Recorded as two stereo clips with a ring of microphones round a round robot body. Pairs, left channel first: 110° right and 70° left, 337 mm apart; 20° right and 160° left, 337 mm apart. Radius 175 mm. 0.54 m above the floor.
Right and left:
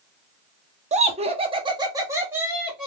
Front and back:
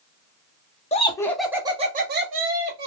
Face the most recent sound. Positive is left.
turn(degrees=155)